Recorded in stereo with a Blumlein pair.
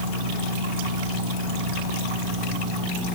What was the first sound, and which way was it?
Only background noise.